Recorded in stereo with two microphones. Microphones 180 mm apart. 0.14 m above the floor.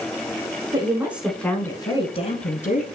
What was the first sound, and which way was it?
A woman speaking, 25° right (ahead or behind).